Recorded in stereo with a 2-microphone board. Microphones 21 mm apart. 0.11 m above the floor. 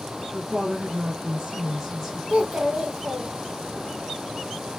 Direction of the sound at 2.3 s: 50° right (ahead or behind).